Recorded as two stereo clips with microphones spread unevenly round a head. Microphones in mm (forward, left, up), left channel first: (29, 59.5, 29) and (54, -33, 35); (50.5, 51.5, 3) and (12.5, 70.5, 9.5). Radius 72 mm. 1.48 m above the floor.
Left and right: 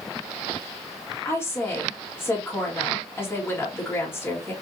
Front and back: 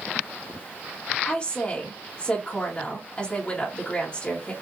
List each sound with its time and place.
1.2 s a woman speaking: 40° left, 2 m